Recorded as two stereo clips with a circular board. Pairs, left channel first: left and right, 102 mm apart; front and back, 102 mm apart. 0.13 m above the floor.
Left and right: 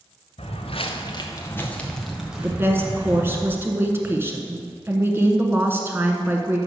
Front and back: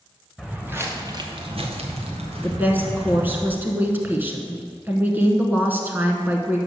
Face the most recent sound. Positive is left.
turn(degrees=-130)